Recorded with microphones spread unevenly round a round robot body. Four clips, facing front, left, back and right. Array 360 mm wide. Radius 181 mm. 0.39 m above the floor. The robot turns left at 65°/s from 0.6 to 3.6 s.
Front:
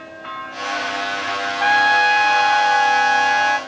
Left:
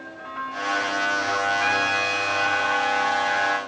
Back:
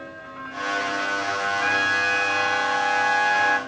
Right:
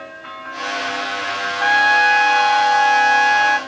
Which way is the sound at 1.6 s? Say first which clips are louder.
Right 9 dB, front 13 dB; 5° left.